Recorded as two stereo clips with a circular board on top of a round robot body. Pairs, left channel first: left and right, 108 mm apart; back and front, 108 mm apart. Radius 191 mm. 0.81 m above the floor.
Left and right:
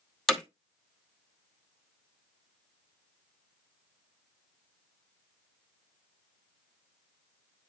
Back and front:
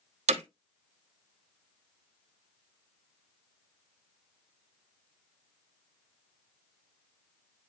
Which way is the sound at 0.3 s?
5° left.